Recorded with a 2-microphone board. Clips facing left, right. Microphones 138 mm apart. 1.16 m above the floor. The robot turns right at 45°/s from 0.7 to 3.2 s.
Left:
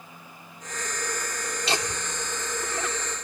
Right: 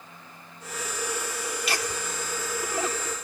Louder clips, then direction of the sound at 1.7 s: Left 3 dB; 25° left (ahead or behind).